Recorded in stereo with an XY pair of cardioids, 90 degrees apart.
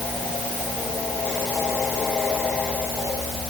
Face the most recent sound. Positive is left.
No sound to turn to.